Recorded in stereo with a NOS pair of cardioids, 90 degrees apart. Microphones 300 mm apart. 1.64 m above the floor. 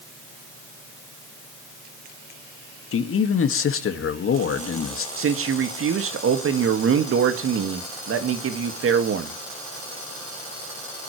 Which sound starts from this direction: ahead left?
A man speaking, at 2.9 s.